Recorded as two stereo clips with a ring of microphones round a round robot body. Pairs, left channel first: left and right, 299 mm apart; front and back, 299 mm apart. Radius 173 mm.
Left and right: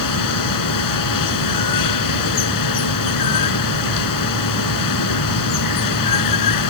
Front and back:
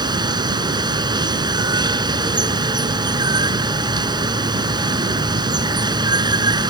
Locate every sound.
0.0 s running water: 105° left